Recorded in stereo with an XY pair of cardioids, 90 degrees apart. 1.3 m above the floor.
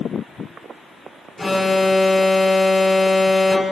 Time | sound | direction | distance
1.4 | an alarm | 20° left | 2.5 m